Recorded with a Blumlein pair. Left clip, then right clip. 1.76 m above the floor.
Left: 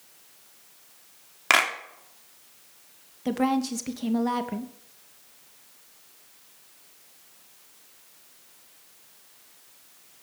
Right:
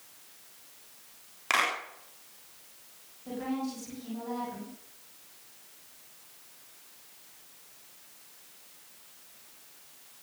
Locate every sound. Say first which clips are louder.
1.5 s a clap: left 6 dB; 65° left, 3.5 m
3.2 s a woman speaking: left 10 dB; 40° left, 2.5 m